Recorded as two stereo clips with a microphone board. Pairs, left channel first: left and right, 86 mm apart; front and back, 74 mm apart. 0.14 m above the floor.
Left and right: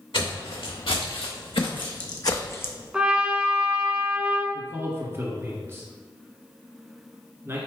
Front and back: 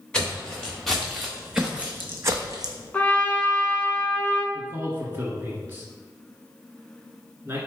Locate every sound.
0.1 s footsteps: 80° left, 1.6 m; by 2.7 s 160° left, 0.6 m
2.9 s a trumpet: 35° right, 0.6 m
4.5 s a man speaking: 135° right, 1.4 m